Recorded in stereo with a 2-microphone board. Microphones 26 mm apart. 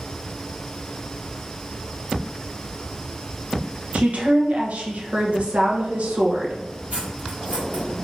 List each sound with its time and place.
3.9 s a woman speaking: 65° right (ahead or behind), 1.1 m
6.9 s cutlery clinking: 80° right, 1.5 m